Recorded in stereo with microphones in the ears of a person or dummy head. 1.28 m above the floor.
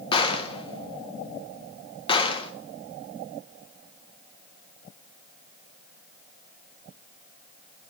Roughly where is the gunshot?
Left.